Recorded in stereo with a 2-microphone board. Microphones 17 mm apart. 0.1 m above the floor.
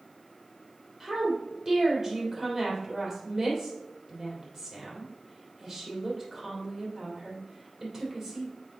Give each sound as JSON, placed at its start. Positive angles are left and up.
{"t": 1.0, "sound": "a woman speaking", "side_deg": -20, "distance_m": 3.0}